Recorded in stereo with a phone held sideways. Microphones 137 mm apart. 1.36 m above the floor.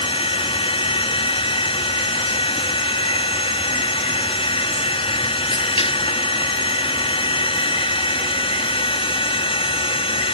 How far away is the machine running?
About 1.0 m.